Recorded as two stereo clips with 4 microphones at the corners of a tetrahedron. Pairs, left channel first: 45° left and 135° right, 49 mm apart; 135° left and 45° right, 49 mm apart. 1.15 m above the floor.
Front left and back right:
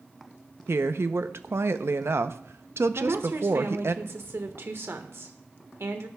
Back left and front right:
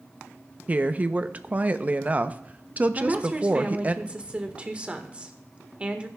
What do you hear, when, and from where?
0.7 s a woman speaking: 105° right, 0.6 m
3.0 s a woman speaking: 110° right, 1.3 m